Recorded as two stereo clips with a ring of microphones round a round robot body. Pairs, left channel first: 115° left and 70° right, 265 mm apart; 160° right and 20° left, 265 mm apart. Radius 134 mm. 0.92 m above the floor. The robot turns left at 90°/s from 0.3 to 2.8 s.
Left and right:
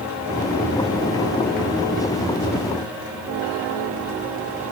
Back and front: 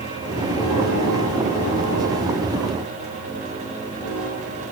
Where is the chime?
I don't hear a chime.